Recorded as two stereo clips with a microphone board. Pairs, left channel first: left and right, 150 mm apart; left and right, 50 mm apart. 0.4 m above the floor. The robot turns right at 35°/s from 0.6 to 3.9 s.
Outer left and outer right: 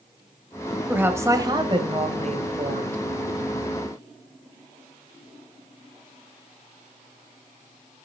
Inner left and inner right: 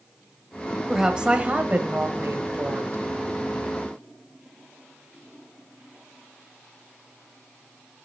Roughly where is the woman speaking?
Behind.